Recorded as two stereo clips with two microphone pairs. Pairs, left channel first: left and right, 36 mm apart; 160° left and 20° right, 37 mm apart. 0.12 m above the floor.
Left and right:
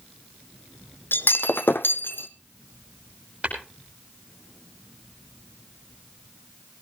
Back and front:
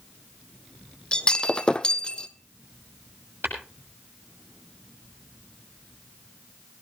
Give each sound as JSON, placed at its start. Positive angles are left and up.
{"t": 1.1, "sound": "breaking glass", "azimuth_deg": 90, "distance_m": 0.8}
{"t": 3.4, "sound": "tapping", "azimuth_deg": -30, "distance_m": 6.0}